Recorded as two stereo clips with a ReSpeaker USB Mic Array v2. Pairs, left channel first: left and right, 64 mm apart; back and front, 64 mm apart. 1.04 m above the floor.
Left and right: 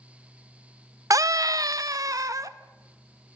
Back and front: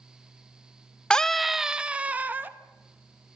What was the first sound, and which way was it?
A scream, 105° right.